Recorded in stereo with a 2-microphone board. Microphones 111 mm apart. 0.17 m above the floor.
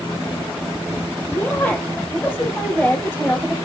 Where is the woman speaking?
10° left (ahead or behind), 6 m.